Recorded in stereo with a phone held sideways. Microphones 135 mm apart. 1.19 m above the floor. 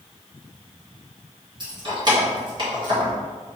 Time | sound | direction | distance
1.6 | keys jangling | 35° right (ahead or behind) | 1.4 m